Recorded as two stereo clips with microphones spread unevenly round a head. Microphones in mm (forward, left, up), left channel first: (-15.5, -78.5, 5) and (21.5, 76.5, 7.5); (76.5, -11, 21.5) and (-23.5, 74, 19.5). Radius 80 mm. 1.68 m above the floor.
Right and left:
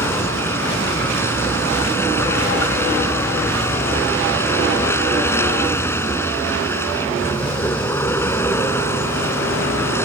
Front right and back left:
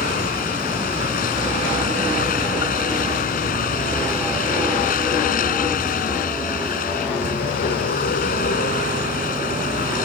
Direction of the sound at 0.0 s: 30° right.